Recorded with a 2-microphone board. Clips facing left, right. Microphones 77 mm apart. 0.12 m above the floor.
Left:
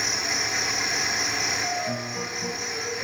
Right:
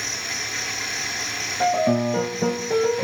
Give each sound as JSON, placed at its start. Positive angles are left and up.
{"t": 0.0, "sound": "an insect", "side_deg": 5, "distance_m": 1.0}
{"t": 1.6, "sound": "a piano", "side_deg": -75, "distance_m": 1.6}